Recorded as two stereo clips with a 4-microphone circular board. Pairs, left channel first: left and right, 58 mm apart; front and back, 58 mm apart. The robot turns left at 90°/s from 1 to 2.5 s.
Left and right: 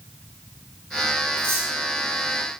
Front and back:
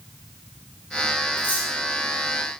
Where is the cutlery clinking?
40° right, 6 m; by 1.7 s 70° right, 6 m.